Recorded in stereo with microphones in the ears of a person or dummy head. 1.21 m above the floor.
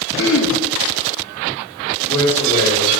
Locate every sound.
0.2 s throat clearing: 65° left (ahead or behind), 1.9 m
2.0 s a man speaking: 40° left (ahead or behind), 3 m